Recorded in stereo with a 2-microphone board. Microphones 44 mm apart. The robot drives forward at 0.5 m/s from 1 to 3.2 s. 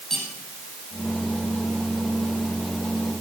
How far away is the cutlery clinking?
About 4.5 m.